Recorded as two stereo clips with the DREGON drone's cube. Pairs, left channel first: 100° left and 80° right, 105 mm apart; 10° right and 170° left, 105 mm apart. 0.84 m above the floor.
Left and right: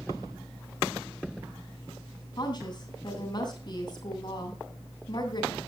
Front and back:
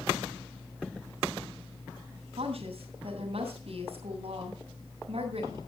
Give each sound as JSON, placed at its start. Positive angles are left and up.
{"t": 2.4, "sound": "a woman speaking", "azimuth_deg": 145, "distance_m": 8.0}